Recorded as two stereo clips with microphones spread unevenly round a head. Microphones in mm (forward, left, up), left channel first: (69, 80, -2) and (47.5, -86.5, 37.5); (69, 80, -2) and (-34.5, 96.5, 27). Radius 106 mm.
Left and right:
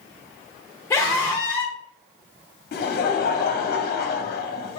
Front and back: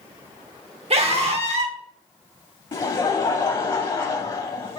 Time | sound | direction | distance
0.9 | a scream | 165° left | 1.0 m
2.7 | laughter | 45° left | 0.8 m